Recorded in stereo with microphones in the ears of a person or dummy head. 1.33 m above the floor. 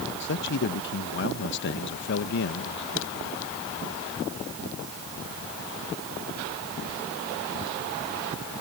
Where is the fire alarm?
I don't hear a fire alarm.